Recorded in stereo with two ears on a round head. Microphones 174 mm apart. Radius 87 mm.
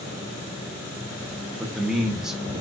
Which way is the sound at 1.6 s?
5° right (ahead or behind).